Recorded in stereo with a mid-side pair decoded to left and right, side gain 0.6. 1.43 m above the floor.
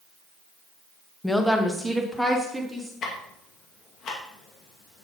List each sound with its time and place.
1.2 s a woman speaking: 5° left, 1.6 m; by 2.9 s 10° right, 3.5 m
3.0 s ticking: 50° left, 2.5 m